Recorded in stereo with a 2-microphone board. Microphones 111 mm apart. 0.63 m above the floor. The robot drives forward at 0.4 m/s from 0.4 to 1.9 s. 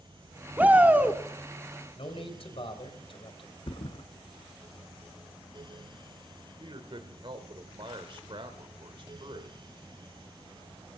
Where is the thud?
55° left (ahead or behind), 0.8 m.